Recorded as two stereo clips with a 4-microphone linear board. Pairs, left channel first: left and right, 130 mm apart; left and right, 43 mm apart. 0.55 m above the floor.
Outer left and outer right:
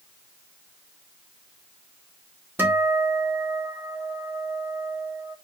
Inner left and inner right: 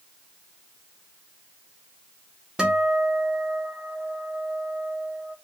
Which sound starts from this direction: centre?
A guitar, at 2.6 s.